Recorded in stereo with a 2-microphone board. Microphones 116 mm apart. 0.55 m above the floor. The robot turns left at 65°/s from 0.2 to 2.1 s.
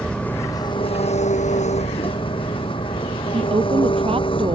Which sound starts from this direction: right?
A woman speaking, at 3.3 s.